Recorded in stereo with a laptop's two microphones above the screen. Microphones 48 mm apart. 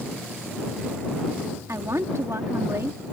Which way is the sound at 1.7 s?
70° right (ahead or behind).